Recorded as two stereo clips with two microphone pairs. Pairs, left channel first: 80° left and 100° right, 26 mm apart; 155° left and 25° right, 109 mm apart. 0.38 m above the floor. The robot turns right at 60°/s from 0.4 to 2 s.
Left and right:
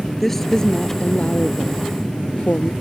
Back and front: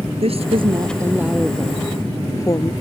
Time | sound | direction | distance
0.2 | a woman speaking | straight ahead | ?